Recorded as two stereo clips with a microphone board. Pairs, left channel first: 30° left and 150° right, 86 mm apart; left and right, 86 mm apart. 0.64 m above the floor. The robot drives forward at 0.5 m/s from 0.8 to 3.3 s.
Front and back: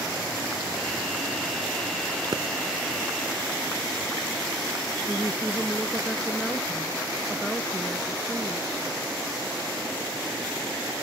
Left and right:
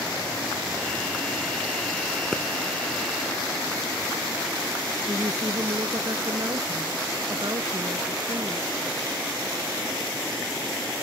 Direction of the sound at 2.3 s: 175° left.